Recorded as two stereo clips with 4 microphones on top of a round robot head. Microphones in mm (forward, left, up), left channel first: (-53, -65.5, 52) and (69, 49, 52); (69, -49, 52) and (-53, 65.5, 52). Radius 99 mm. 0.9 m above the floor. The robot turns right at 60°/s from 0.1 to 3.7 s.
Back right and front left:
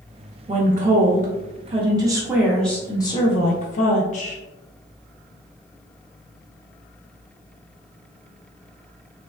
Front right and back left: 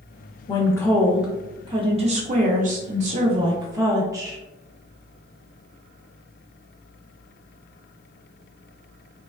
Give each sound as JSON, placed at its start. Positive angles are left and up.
{"t": 0.5, "sound": "a woman speaking", "azimuth_deg": 10, "distance_m": 0.5}